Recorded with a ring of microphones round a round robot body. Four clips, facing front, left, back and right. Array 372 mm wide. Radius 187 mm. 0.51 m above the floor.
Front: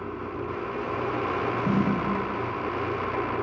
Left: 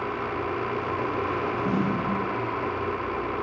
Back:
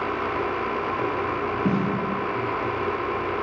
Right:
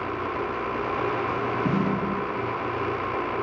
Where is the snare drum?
150° right, 2.5 m.